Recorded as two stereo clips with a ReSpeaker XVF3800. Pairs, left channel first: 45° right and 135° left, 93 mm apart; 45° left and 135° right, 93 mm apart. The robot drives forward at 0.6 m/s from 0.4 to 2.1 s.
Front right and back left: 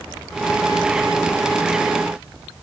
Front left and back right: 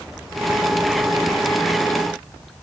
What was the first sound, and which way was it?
Only background noise.